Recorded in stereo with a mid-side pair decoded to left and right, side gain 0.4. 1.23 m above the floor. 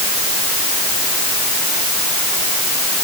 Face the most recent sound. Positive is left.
No sound to turn to.